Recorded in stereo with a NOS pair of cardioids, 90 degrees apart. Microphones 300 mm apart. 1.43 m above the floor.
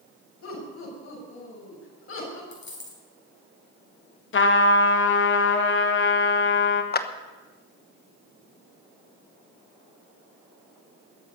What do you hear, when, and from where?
0.4 s laughter: 60° left, 7.5 m; by 2.4 s 50° left, 7 m
2.5 s a dropped coin: 40° left, 5 m
4.3 s a trumpet: 40° left, 1.4 m
6.9 s a clap: 35° left, 1.0 m